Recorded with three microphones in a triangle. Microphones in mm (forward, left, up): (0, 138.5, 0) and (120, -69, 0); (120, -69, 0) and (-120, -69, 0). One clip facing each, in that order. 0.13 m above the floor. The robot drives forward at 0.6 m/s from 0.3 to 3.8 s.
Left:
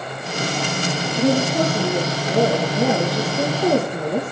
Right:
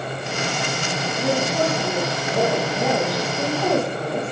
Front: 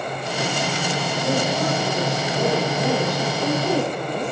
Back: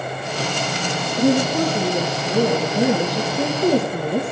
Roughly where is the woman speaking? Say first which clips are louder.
Left 4 dB, back 7 dB; behind.